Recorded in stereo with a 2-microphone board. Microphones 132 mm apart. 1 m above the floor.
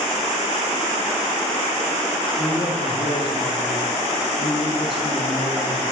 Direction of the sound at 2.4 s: 40° left (ahead or behind).